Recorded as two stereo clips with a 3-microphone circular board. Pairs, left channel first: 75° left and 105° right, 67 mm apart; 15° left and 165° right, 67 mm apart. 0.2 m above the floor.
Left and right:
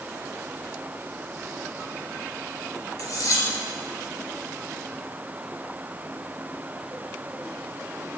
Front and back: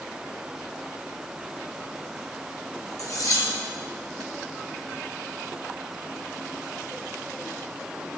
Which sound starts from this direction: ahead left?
Cutlery clinking, at 3.0 s.